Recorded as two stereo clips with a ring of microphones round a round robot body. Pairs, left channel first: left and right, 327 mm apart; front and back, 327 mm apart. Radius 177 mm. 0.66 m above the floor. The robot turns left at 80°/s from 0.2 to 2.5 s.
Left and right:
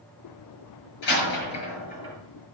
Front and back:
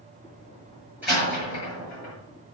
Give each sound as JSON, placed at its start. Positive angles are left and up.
{"t": 1.0, "sound": "a door slam", "azimuth_deg": 95, "distance_m": 7.0}